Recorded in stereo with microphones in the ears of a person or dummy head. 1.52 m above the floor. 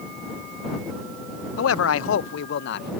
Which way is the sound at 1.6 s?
75° left (ahead or behind).